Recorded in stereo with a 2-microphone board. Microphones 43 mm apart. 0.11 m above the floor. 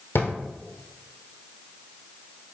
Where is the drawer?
65° left (ahead or behind), 0.8 m.